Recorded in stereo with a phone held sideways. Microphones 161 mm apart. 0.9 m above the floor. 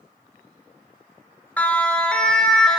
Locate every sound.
1.6 s a siren: 10° left (ahead or behind), 2 m; by 2.8 s 5° left (ahead or behind), 3 m